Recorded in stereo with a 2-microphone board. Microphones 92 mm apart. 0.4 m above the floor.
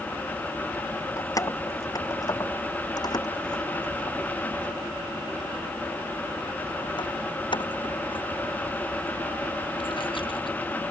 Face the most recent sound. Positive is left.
turn(degrees=70)  # may be behind; listen again after turning